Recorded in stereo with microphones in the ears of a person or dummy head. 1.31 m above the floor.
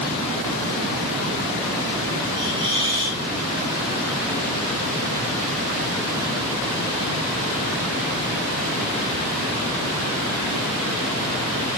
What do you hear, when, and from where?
2.4 s a hiss: 25° right (ahead or behind), 7 m